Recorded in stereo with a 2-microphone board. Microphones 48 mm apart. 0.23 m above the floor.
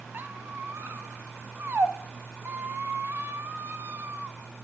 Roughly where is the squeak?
Right.